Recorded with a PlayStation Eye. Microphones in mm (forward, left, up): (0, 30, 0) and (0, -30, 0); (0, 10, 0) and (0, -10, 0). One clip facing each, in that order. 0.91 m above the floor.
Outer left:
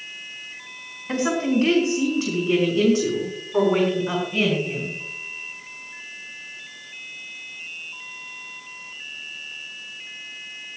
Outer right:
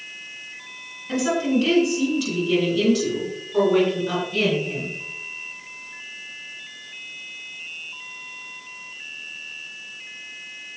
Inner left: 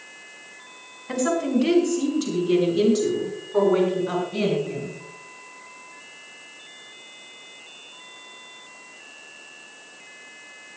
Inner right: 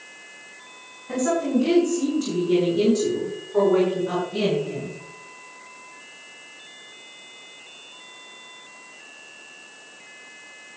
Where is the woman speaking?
40° left (ahead or behind), 5.5 m; by 5.0 s 15° left (ahead or behind), 7 m.